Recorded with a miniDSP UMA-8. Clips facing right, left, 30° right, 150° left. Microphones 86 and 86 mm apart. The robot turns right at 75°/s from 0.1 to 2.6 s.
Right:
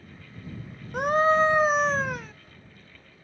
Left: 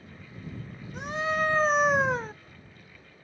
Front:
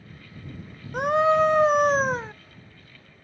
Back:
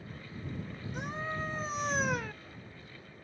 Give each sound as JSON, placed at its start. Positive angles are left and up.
{"t": 0.9, "sound": "a scream", "azimuth_deg": -60}